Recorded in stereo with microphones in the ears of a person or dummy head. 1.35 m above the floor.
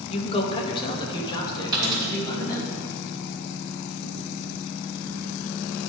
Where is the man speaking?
30° left (ahead or behind), 1.1 m; by 2.7 s 20° left (ahead or behind), 3 m.